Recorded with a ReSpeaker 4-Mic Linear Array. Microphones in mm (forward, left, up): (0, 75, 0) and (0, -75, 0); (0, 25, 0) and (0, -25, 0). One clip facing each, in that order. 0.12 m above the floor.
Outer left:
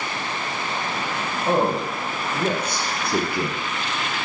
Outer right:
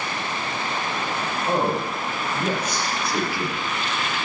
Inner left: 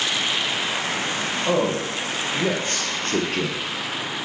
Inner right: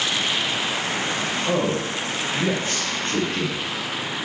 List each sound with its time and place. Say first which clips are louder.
1.5 s a man speaking: outer left 3 dB, inner left 2 dB; 55° left (ahead or behind), 4.5 m